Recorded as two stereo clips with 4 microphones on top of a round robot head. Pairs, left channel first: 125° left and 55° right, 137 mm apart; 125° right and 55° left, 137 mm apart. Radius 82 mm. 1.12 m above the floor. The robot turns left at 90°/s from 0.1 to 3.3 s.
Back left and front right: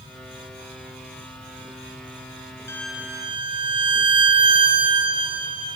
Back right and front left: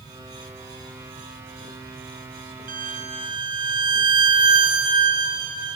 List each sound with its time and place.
2.7 s a violin: 55° left, 1.4 m; by 5.8 s straight ahead, 1.4 m